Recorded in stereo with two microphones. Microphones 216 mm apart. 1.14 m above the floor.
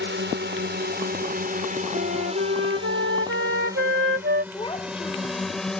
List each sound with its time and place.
0.0 s a drone: 60° right (ahead or behind); by 5.8 s 5° left (ahead or behind)
1.9 s a flute: 65° right (ahead or behind)
4.5 s a child speaking: 20° left (ahead or behind)